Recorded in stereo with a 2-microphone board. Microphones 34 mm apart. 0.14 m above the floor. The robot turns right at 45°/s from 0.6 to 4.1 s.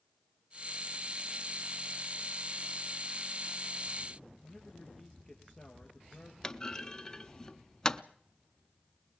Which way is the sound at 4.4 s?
10° left (ahead or behind).